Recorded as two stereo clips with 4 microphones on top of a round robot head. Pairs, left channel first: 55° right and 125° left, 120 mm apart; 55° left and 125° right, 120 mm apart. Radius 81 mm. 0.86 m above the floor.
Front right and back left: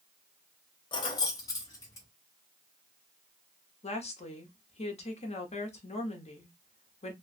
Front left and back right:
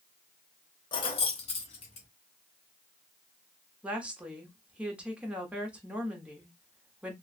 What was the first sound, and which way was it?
Keys jangling, straight ahead.